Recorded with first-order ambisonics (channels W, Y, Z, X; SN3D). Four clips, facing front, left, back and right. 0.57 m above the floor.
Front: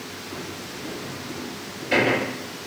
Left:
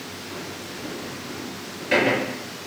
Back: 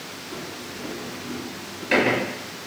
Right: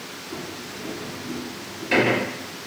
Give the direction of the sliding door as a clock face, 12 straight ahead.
6 o'clock.